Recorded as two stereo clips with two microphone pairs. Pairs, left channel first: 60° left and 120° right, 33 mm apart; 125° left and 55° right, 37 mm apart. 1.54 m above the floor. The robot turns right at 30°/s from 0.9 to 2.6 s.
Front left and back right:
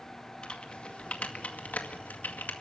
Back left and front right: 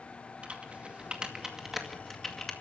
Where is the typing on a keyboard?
Straight ahead, 2 m; by 2.5 s 50° left, 2 m.